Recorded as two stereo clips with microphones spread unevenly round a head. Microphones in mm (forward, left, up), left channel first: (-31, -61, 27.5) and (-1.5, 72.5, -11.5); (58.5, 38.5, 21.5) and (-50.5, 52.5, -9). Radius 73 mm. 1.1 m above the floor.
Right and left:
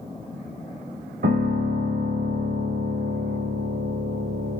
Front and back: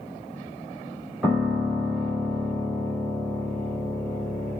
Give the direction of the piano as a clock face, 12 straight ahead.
9 o'clock.